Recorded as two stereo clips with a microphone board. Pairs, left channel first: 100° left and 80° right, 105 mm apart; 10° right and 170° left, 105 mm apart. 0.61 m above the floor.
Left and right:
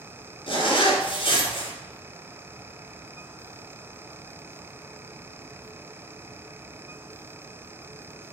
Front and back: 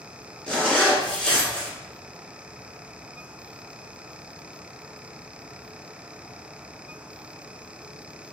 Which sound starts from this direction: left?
A zipper, at 0.5 s.